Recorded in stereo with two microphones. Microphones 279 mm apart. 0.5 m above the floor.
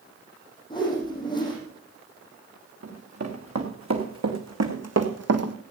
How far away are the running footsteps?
About 3 m.